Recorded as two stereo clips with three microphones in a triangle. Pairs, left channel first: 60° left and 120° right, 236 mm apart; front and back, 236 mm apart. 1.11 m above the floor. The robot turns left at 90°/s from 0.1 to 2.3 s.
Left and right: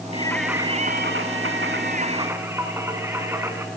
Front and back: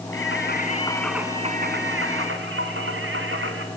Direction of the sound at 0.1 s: 5° right.